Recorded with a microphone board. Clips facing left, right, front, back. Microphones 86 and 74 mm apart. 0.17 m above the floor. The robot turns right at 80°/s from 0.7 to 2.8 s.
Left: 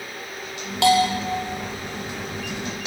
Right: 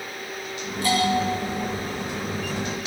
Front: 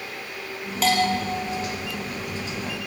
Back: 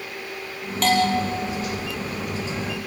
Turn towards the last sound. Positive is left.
turn(degrees=-115)